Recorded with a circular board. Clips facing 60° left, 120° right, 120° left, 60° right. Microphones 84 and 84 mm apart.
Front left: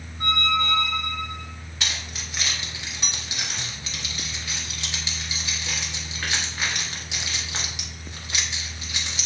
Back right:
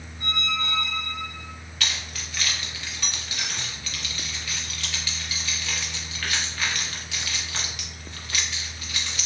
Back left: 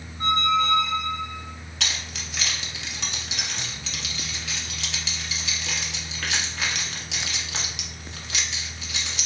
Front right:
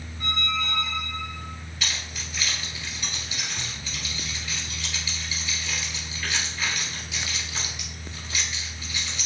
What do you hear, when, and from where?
0.2 s a squeak: 90° left, 1.4 m
1.8 s keys jangling: 130° left, 0.9 m